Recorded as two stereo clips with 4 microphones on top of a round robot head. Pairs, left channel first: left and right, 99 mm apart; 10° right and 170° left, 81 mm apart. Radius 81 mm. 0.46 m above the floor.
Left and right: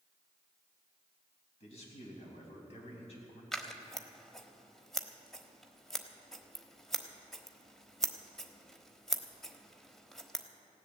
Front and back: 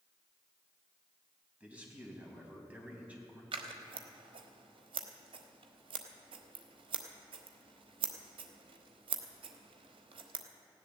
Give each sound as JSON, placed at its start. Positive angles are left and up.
{"t": 1.6, "sound": "a man speaking", "azimuth_deg": 95, "distance_m": 4.0}
{"t": 3.5, "sound": "scissors", "azimuth_deg": 175, "distance_m": 1.1}